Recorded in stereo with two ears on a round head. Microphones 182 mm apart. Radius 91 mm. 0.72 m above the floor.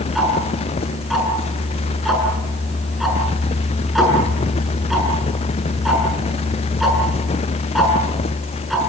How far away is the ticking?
About 7 m.